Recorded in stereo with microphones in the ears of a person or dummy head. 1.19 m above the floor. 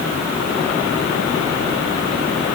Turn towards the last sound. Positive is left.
No sound to turn to.